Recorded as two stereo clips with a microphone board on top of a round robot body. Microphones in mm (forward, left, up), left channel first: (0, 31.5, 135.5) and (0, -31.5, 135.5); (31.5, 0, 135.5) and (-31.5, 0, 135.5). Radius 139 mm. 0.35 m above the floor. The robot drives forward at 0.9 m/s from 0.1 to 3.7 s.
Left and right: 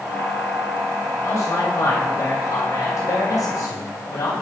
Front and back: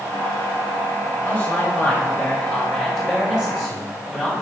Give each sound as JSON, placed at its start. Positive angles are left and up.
{"t": 1.2, "sound": "a man speaking", "azimuth_deg": 50, "distance_m": 3.0}